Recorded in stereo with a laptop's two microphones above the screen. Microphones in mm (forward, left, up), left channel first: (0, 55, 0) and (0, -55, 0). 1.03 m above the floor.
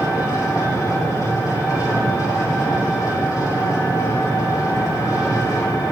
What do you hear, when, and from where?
0.0 s an engine running: 30° left (ahead or behind), 5 m